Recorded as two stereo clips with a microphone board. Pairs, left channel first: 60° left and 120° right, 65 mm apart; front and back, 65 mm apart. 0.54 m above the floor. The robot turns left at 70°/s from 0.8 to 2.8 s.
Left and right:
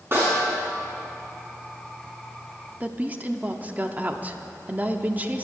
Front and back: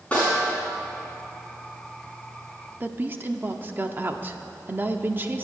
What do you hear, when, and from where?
0.1 s a snare drum: 70° right, 5 m
2.8 s a woman speaking: 160° right, 0.7 m